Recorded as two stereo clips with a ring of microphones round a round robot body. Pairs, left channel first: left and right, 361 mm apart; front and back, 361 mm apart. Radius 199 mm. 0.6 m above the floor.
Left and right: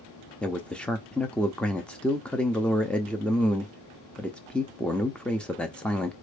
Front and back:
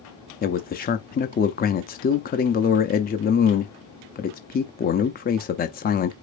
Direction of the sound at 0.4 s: 5° left.